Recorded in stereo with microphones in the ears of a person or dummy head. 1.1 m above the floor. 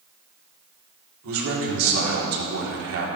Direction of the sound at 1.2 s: 80° right.